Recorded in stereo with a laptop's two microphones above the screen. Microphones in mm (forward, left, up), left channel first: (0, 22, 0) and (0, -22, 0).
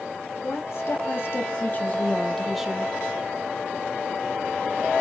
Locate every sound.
0.4 s a woman speaking: 65° left (ahead or behind), 1.6 m; by 3.0 s 25° right (ahead or behind), 0.7 m